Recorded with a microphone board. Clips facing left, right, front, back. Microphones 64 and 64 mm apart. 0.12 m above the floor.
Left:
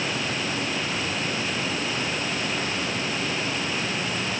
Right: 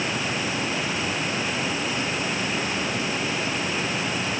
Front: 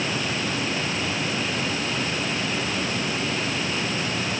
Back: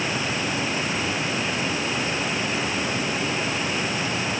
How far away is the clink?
No clink in this recording.